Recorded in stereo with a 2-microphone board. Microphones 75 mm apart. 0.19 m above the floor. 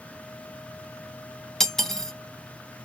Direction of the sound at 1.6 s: 5° left (ahead or behind).